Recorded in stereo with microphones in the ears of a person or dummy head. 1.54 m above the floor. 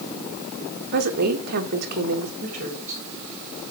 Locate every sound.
0.9 s a woman speaking: 55° right (ahead or behind), 1.7 m
2.4 s a woman speaking: 40° right (ahead or behind), 3.5 m